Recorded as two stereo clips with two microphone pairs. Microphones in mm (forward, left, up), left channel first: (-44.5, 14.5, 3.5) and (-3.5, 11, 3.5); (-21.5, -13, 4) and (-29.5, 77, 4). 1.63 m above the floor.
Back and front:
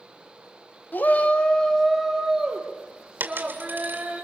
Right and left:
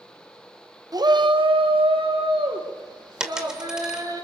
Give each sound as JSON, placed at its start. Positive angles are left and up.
{"t": 0.9, "sound": "a shout", "azimuth_deg": 140, "distance_m": 1.4}
{"t": 3.2, "sound": "a dropped coin", "azimuth_deg": 15, "distance_m": 2.5}